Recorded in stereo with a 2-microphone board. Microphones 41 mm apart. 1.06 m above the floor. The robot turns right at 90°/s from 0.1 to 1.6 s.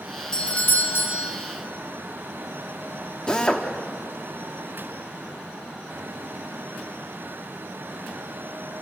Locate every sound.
0.3 s a doorbell: 15° left, 2.5 m; by 1.3 s 105° left, 2.5 m
3.3 s a drill: 20° left (ahead or behind), 1.3 m